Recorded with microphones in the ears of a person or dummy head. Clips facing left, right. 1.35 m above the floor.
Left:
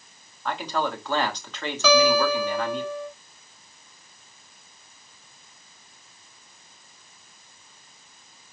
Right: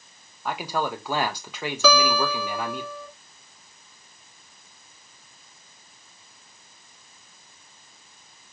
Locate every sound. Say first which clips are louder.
0.5 s a man speaking: even; 5° right (ahead or behind), 0.9 m
1.8 s a guitar: left 3 dB; 80° right, 3.5 m